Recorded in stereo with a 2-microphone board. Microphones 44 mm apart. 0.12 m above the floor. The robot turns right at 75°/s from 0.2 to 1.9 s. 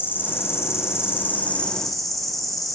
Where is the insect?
50° left, 0.7 m; by 2.8 s straight behind, 0.7 m.